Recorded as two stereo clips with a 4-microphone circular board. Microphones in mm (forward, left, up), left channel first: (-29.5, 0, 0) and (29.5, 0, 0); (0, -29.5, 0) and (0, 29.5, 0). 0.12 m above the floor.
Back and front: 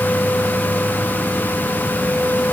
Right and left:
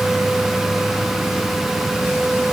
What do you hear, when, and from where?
Only background noise.